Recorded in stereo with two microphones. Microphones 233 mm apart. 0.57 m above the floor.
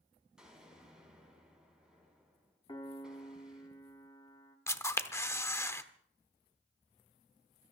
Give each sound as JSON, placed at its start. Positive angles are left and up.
{"t": 0.4, "sound": "an explosion", "side_deg": -5, "distance_m": 5.5}
{"t": 2.7, "sound": "a piano", "side_deg": 20, "distance_m": 1.4}
{"t": 4.7, "sound": "a camera shutter", "side_deg": 10, "distance_m": 0.8}